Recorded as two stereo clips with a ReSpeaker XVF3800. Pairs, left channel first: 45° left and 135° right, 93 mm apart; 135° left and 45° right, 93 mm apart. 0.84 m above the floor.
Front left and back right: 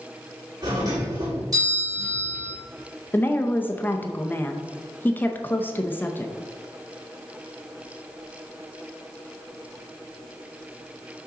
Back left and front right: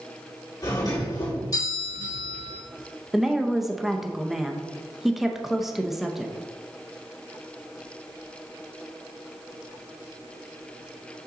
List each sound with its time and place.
0.6 s a doorbell: straight behind, 2.5 m
3.1 s a woman speaking: 35° left, 0.6 m